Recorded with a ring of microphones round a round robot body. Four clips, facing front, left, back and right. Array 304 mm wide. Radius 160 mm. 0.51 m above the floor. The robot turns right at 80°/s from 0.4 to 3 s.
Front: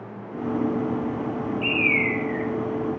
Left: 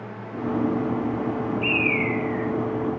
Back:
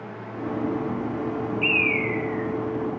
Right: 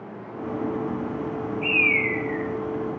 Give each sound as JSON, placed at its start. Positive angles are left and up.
{"t": 1.6, "sound": "a bird", "azimuth_deg": -75, "distance_m": 3.5}